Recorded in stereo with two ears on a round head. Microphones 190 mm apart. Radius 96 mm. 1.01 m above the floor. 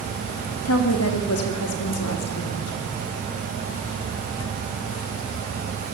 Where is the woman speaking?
75° left (ahead or behind), 2 m; by 2.9 s 80° left, 4 m.